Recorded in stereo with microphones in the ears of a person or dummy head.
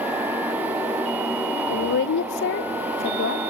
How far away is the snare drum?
I don't hear a snare drum.